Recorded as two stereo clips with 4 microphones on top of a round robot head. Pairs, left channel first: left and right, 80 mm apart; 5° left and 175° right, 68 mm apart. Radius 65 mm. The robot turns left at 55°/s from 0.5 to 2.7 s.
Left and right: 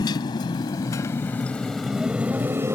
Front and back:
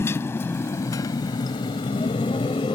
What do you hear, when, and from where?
0.0 s a motorcycle: 55° left; by 2.8 s 30° right